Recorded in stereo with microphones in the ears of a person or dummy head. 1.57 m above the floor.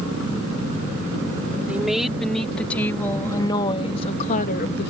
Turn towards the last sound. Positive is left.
turn(degrees=65)  # may be behind; listen again after turning